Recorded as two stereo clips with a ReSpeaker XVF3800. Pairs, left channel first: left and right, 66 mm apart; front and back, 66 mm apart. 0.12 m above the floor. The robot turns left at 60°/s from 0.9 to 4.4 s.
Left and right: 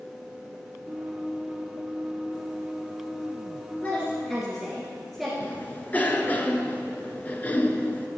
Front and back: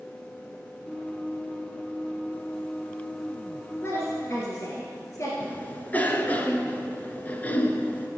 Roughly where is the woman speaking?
Ahead left.